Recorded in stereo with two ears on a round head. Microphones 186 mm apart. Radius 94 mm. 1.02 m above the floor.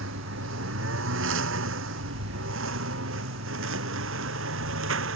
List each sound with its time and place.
0.0 s a lawn mower: 75° right (ahead or behind)